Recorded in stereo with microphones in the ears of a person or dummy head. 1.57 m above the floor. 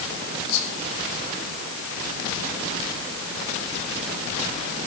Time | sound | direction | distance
0.5 | whispering | 80° left | 5 m